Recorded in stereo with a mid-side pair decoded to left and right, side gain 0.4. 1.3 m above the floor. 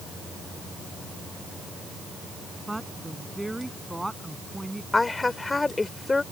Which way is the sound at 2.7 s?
10° right.